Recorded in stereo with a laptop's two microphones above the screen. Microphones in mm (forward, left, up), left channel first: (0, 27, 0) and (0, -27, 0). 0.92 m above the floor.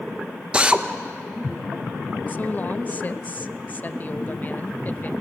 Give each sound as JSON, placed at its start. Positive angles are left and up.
{"t": 0.5, "sound": "a drill", "side_deg": -20, "distance_m": 0.8}
{"t": 2.3, "sound": "a woman speaking", "side_deg": 35, "distance_m": 0.8}